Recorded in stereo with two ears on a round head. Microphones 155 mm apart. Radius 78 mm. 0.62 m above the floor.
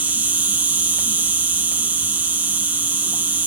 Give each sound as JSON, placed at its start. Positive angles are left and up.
{"t": 0.0, "sound": "an insect", "side_deg": -10, "distance_m": 1.0}